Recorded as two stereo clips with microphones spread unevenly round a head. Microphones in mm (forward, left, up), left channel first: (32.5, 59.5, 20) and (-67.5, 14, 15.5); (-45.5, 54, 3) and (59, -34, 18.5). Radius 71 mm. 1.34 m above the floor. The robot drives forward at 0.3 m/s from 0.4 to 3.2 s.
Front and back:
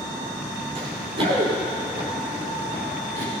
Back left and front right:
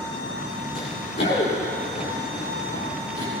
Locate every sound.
0.8 s running footsteps: straight behind, 5 m; by 3.3 s 160° right, 6.5 m